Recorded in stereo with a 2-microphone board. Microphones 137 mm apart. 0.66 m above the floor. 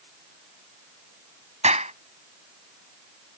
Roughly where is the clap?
Right.